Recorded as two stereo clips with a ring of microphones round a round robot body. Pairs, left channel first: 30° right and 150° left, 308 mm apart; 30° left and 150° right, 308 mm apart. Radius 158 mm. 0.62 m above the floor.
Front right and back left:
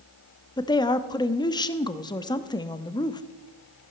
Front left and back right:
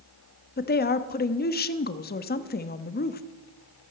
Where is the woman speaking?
35° left, 0.8 m.